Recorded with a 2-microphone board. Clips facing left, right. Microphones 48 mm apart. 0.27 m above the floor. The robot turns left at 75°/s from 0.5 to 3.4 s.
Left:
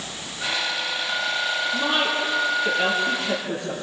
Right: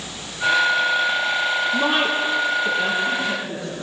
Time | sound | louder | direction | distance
1.7 | a woman speaking | right 3 dB | 50° right (ahead or behind) | 5.5 m